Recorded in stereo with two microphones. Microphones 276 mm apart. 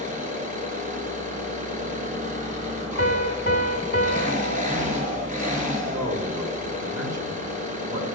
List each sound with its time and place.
0.0 s an engine running: 30° right (ahead or behind), 5 m
3.0 s a piano: 45° left (ahead or behind), 1.9 m
5.9 s a man speaking: 75° right (ahead or behind), 3.5 m